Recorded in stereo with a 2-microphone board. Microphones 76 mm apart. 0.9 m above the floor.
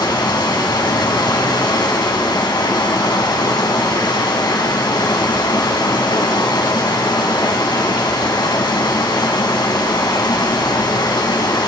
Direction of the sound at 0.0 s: 80° left.